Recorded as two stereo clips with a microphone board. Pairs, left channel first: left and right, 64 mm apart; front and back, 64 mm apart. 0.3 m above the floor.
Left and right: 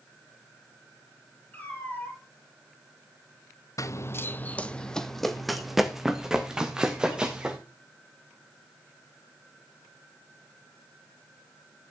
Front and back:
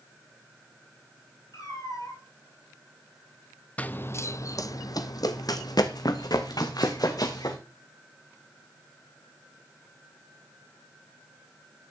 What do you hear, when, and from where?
1.5 s a cat meowing: 25° left, 3.5 m
3.8 s running footsteps: 65° left, 0.5 m; by 7.6 s 15° right, 2.0 m